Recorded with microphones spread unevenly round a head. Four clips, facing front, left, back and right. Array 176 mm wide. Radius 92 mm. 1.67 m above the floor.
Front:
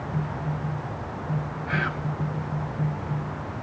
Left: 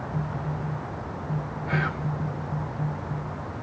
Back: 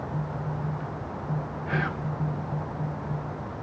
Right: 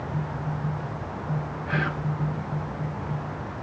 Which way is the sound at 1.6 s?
130° left.